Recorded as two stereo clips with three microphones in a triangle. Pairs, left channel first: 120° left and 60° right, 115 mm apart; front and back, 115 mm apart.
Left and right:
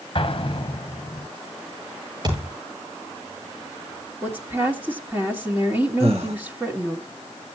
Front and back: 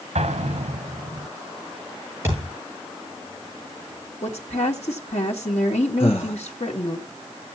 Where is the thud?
115° right, 8.5 m.